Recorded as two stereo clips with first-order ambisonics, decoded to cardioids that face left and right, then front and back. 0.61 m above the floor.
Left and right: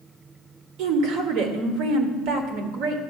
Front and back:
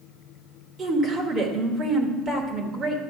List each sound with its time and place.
0.8 s a woman speaking: 115° right, 1.4 m